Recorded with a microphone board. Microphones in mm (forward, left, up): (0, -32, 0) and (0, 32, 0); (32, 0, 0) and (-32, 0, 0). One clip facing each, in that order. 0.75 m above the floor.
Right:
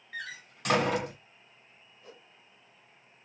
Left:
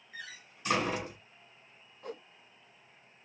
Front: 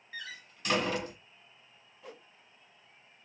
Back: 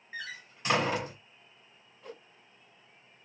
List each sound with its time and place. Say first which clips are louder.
0.1 s a door slam: right 6 dB, back 3 dB; 115° right, 3 m
2.0 s a whoosh: left 10 dB, back 2 dB; 90° left, 0.9 m